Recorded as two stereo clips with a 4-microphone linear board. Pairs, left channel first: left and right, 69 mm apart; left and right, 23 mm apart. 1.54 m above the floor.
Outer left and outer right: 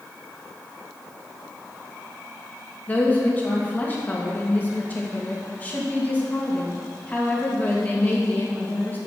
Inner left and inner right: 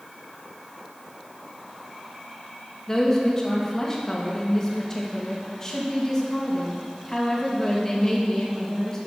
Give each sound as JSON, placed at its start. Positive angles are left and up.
{"t": 2.9, "sound": "a woman speaking", "side_deg": 25, "distance_m": 2.5}